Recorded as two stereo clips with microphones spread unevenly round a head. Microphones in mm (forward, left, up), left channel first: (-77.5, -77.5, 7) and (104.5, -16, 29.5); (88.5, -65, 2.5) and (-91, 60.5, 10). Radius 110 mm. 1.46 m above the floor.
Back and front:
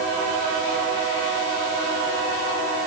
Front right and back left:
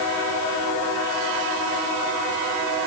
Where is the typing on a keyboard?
I don't hear typing on a keyboard.